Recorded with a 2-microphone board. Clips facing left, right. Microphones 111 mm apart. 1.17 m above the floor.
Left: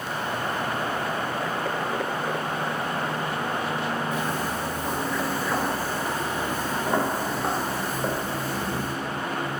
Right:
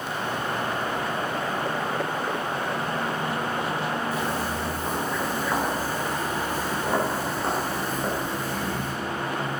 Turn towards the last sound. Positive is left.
turn(degrees=10)  # may be behind; listen again after turning